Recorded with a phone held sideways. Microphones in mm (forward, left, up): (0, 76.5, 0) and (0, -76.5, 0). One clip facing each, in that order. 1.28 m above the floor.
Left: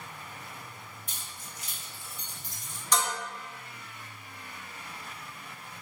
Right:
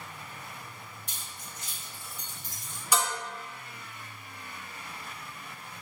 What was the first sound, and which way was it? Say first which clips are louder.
Keys jangling: even; 65° right (ahead or behind).